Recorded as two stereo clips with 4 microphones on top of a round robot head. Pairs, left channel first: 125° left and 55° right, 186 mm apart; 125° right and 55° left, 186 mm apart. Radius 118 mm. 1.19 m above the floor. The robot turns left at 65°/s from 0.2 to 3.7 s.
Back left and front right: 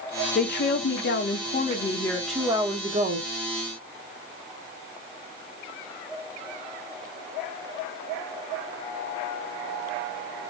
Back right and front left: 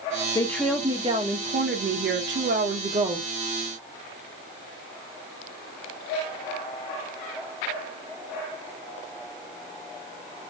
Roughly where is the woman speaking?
Behind.